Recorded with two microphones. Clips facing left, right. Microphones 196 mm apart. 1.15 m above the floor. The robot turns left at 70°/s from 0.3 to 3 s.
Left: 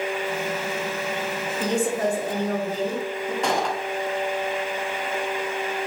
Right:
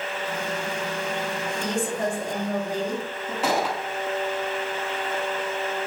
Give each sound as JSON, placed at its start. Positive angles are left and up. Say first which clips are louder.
{"t": 1.6, "sound": "a woman speaking", "louder": "left 5 dB", "azimuth_deg": 125, "distance_m": 2.5}
{"t": 3.4, "sound": "a gunshot", "louder": "right 2 dB", "side_deg": -5, "distance_m": 0.9}